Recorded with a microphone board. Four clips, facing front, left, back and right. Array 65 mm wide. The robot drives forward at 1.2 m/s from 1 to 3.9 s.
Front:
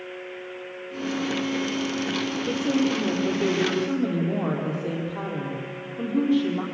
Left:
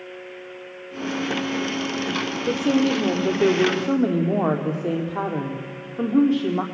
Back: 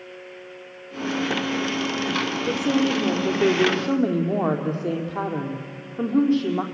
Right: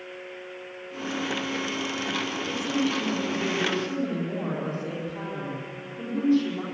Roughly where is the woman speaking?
Left.